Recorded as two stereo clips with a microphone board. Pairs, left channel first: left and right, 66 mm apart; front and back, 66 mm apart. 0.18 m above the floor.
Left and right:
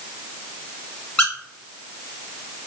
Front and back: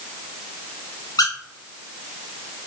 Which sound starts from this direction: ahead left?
A squeak, at 1.2 s.